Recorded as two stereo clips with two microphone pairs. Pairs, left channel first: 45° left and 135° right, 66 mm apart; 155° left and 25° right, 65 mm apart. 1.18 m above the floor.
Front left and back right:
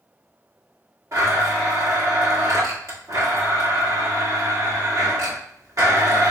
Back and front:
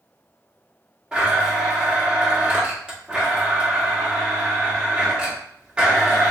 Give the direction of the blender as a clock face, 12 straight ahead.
3 o'clock.